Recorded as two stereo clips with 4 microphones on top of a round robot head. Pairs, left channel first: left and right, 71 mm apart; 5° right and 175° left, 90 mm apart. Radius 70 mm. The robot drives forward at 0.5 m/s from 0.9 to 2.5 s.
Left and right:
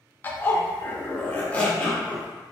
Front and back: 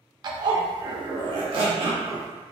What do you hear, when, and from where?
0.2 s a zipper: 150° left, 0.6 m; by 2.3 s 165° left, 1.1 m